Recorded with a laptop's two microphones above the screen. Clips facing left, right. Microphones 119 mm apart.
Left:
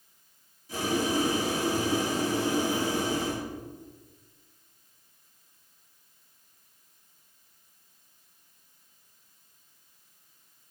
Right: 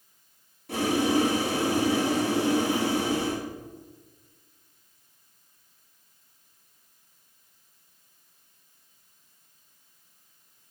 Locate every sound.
0.7 s boiling: 70° right (ahead or behind), 2 m